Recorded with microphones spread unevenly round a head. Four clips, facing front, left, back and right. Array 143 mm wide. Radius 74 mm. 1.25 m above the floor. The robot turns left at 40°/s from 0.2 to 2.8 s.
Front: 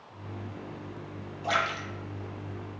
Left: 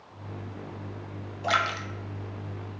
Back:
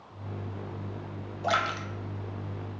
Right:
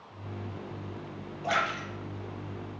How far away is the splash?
About 0.7 m.